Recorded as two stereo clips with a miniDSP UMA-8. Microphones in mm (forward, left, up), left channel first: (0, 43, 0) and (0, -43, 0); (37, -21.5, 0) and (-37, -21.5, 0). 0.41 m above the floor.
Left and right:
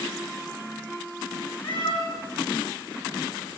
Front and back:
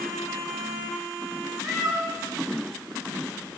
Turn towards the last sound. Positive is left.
turn(degrees=80)